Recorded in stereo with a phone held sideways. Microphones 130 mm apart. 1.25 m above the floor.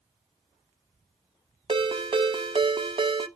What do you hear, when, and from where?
1.7 s a ringtone: 40° right (ahead or behind), 0.8 m